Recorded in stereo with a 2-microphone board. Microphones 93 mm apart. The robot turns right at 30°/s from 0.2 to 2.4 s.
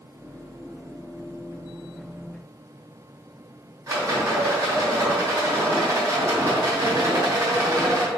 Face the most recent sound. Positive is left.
turn(degrees=-35)  # may be behind; listen again after turning